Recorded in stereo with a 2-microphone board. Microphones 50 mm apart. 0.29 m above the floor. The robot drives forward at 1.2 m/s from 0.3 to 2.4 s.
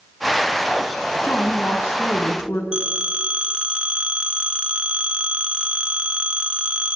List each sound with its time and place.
1.2 s a woman speaking: 50° left (ahead or behind), 4 m; by 2.6 s 65° left (ahead or behind), 3.5 m
2.7 s a phone ringing: 25° right (ahead or behind), 3 m